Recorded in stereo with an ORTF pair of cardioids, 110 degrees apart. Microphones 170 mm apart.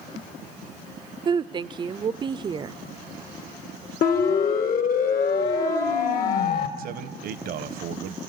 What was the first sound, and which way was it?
A woman speaking, 25° right.